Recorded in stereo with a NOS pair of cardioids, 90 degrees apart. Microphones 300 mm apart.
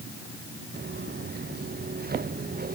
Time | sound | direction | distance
0.7 | footsteps | 35° right | ?